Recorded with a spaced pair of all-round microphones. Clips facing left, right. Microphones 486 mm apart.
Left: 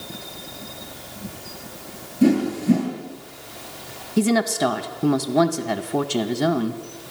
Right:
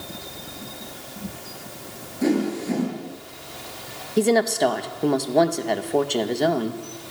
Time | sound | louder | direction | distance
2.2 | a whoosh | left 4 dB | 55° left (ahead or behind) | 8 m
4.2 | a woman speaking | right 1 dB | 25° left (ahead or behind) | 1.6 m